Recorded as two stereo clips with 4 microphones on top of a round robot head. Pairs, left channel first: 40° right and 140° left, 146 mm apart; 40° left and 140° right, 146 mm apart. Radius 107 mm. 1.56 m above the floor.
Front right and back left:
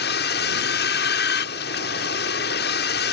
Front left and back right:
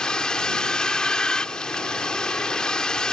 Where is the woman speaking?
No woman speaking in this recording.